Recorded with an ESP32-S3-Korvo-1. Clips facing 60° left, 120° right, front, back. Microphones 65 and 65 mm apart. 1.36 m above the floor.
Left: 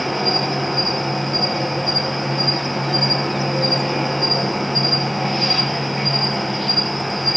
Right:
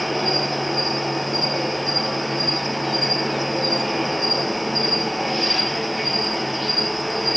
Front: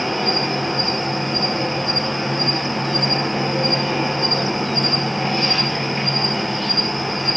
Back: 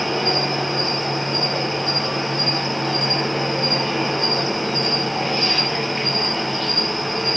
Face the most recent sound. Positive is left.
turn(degrees=75)